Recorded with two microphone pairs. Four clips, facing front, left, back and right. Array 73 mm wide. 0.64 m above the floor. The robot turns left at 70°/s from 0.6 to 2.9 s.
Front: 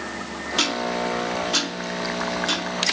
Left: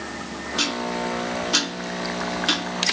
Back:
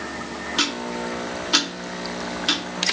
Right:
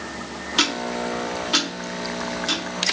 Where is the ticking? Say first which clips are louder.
Right 2 dB, front 3 dB; 90° right, 1.3 m; by 2.6 s 125° left, 1.3 m.